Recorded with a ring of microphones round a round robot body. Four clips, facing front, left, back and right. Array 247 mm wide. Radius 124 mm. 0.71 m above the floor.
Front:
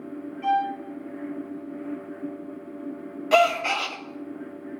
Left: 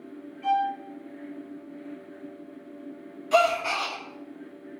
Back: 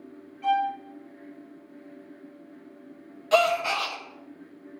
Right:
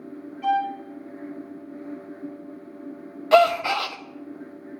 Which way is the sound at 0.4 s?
70° right.